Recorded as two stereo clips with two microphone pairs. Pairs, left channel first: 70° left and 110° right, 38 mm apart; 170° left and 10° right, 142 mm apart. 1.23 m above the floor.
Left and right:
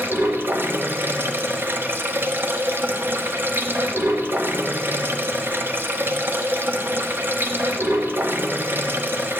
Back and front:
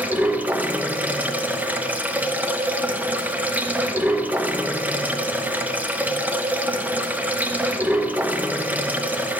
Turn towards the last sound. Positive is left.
turn(degrees=-90)